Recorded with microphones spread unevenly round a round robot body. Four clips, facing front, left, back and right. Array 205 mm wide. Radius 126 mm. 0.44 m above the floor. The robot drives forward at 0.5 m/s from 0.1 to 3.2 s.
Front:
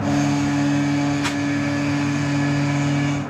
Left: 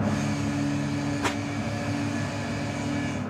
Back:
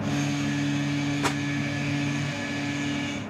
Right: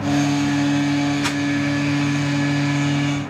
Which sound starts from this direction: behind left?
Crumpling, at 1.2 s.